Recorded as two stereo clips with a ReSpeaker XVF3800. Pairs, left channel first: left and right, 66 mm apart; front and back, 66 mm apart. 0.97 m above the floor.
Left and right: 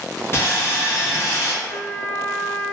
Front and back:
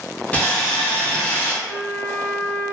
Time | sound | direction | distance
0.3 | sawing | 60° left | 0.6 m
1.6 | a flute | 155° right | 1.4 m